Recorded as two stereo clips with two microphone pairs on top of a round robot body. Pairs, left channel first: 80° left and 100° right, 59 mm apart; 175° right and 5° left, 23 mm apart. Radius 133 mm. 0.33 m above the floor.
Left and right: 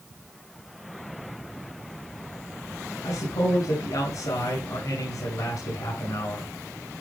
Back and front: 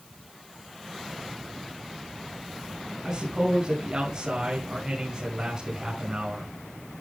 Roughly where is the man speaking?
Ahead left.